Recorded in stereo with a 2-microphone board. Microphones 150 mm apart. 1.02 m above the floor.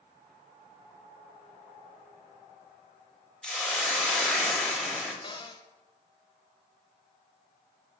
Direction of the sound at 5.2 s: 30° left (ahead or behind).